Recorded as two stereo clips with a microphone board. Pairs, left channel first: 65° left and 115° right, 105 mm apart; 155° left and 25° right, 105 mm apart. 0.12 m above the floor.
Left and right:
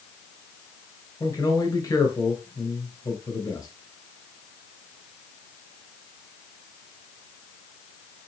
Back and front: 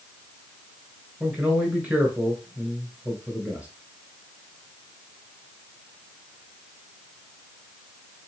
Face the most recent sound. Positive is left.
turn(degrees=45)